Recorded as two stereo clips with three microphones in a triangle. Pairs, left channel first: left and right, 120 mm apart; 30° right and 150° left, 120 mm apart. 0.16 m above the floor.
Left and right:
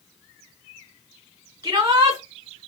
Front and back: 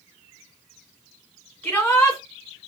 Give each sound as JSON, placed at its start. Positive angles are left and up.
{"t": 1.6, "sound": "a shout", "azimuth_deg": -95, "distance_m": 1.8}